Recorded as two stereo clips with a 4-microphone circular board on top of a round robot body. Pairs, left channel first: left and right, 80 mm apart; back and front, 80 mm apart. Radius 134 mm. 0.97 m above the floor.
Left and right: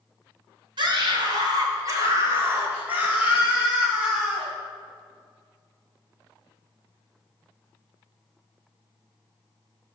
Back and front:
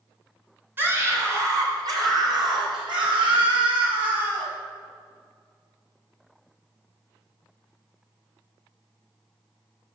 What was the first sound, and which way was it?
A scream, 65° right.